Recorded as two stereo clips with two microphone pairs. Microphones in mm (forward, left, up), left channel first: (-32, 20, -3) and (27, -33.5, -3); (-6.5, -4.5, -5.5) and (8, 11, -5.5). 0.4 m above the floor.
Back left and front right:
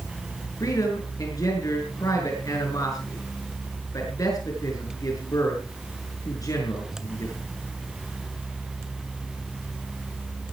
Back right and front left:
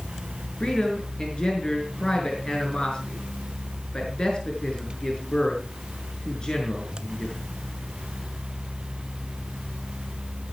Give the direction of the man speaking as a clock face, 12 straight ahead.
6 o'clock.